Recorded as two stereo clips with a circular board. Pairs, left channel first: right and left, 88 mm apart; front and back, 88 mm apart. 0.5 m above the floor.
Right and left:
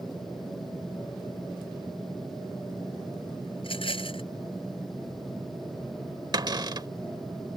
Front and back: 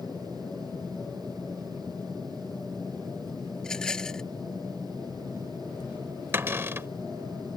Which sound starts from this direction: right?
A rattle, at 3.6 s.